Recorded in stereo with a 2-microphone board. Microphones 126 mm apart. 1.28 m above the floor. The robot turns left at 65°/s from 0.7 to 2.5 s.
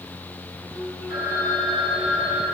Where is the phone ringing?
5° right, 5.5 m; by 2.4 s 90° right, 5.5 m.